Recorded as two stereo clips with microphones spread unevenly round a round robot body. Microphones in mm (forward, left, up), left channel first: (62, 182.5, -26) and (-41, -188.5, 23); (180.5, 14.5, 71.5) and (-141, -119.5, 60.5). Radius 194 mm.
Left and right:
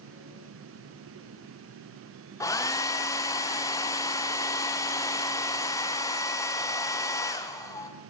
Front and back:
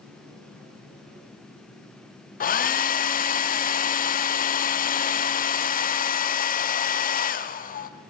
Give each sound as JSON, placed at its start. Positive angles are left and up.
{"t": 2.4, "sound": "a hair dryer", "azimuth_deg": 30, "distance_m": 0.6}